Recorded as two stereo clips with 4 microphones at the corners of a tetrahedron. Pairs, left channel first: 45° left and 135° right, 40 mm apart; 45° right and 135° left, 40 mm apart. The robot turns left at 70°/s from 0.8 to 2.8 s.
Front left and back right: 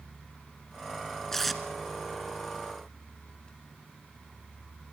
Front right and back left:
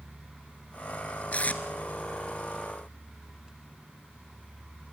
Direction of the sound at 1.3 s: 30° right.